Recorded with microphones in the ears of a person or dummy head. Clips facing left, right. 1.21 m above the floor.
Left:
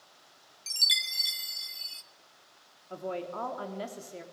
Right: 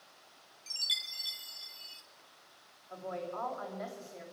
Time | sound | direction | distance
0.7 | a chime | 25° left (ahead or behind) | 0.6 m
2.9 | a woman speaking | 45° left (ahead or behind) | 3 m